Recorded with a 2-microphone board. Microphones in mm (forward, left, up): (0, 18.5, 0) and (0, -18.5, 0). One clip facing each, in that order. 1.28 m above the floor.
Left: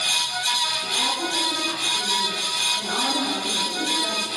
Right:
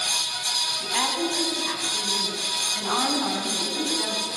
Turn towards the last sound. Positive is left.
turn(degrees=-80)